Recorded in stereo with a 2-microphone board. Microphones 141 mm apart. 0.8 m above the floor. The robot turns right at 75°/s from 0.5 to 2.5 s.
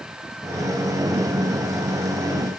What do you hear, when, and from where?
Only background noise.